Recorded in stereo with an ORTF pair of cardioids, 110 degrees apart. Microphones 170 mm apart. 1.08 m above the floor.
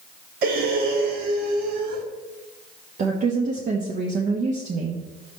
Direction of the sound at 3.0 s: 50° right.